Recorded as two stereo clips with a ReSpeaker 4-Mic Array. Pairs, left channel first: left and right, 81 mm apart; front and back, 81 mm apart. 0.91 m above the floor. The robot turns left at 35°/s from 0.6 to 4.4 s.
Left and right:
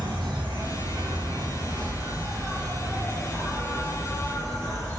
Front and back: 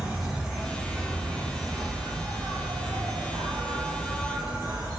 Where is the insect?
90° right, 0.8 m; by 5.0 s 135° left, 0.8 m.